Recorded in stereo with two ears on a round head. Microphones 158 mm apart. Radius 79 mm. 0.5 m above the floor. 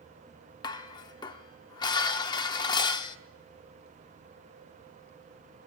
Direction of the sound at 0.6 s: 20° left (ahead or behind).